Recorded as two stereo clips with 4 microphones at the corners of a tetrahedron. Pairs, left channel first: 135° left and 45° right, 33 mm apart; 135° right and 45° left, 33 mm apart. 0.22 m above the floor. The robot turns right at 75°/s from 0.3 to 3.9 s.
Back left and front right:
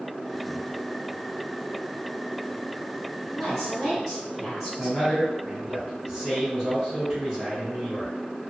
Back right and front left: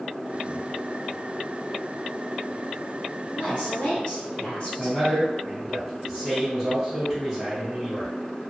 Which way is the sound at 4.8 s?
5° right.